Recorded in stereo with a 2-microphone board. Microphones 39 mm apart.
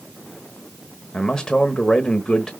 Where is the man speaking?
20° left (ahead or behind), 0.9 m.